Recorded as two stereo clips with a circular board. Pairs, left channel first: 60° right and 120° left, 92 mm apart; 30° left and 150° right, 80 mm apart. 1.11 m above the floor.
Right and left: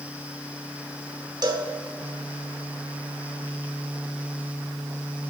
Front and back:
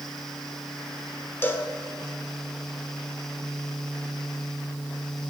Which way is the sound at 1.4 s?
90° left.